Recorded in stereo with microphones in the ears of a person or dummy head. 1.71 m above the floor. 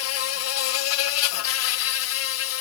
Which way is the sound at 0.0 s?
80° left.